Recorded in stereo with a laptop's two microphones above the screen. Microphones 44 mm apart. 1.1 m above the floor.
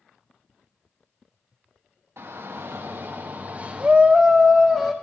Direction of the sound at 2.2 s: 85° right.